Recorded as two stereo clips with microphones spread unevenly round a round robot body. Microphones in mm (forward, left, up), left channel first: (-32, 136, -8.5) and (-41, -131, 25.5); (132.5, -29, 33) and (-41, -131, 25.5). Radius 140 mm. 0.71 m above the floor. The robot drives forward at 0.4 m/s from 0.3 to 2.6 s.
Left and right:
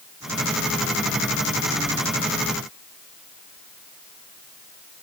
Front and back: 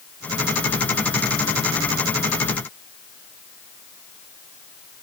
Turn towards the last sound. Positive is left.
No sound to turn to.